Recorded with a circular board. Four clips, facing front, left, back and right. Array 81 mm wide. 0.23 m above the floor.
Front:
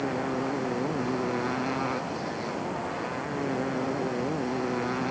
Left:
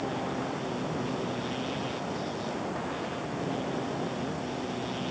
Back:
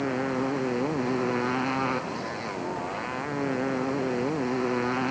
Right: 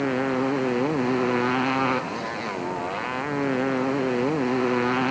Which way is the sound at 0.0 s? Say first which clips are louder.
Right 9 dB, back 2 dB; 100° right.